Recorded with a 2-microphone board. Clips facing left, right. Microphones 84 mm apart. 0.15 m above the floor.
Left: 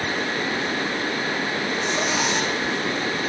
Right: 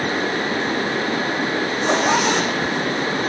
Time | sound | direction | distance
1.7 | a zipper | 65° right (ahead or behind) | 6.5 m